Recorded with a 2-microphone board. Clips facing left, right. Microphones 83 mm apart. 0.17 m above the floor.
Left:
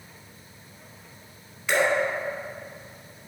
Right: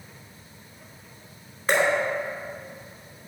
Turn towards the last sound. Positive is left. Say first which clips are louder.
# right 1 dB
turn(degrees=-40)  # may be behind; listen again after turning